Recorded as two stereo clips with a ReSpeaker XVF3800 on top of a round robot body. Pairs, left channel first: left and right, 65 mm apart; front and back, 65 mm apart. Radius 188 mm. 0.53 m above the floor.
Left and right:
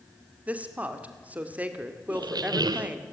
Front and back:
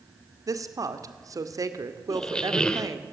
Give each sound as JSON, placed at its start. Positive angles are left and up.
{"t": 0.5, "sound": "a woman speaking", "azimuth_deg": -155, "distance_m": 2.0}
{"t": 2.1, "sound": "a squeak", "azimuth_deg": -75, "distance_m": 0.6}